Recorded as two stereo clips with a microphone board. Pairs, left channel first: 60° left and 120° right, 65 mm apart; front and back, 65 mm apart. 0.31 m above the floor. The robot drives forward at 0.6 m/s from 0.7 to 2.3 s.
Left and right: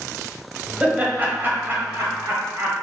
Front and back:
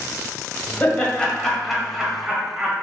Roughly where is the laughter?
Ahead right.